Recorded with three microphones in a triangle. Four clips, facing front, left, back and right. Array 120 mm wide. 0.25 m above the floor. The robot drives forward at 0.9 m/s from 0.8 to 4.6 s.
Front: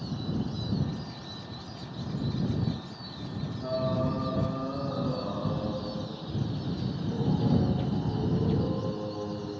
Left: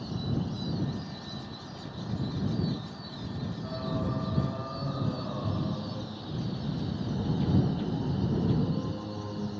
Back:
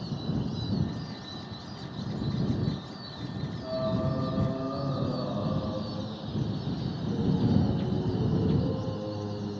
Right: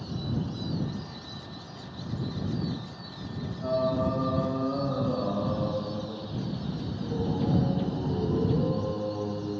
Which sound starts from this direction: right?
Singing, at 3.6 s.